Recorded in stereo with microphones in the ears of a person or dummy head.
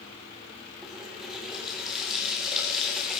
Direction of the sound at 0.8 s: 5° right (ahead or behind).